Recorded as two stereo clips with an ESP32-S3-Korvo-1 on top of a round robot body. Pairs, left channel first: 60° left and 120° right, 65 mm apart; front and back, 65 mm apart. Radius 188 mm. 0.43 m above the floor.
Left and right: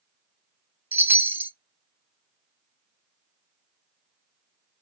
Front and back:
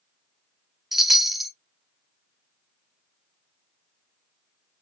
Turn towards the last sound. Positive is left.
turn(degrees=-100)